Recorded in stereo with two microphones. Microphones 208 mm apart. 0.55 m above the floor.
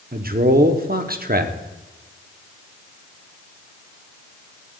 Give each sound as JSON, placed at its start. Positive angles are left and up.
{"t": 0.1, "sound": "a man speaking", "side_deg": -50, "distance_m": 0.9}